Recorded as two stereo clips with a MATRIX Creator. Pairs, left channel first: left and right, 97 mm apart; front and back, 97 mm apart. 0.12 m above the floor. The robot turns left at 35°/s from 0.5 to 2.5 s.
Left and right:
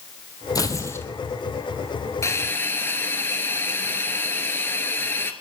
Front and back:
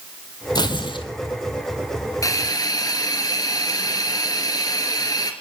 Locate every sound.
0.6 s tearing paper: 40° left, 1.3 m; by 1.1 s 25° left, 1.3 m
2.2 s a hiss: 40° left, 1.3 m; by 5.3 s 30° left, 1.3 m